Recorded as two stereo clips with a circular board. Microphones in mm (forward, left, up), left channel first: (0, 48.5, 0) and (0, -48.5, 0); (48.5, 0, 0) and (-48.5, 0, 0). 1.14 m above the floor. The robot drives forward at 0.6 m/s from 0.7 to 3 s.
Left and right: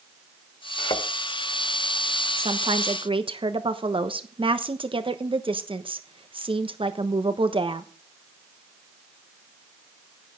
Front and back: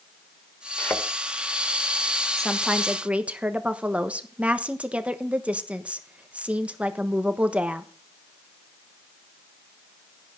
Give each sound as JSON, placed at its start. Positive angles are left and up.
{"t": 0.8, "sound": "a thud", "azimuth_deg": 70, "distance_m": 1.9}
{"t": 2.4, "sound": "a woman speaking", "azimuth_deg": -85, "distance_m": 1.1}